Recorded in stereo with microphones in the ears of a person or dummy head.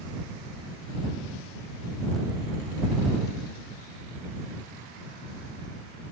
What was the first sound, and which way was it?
Only background noise.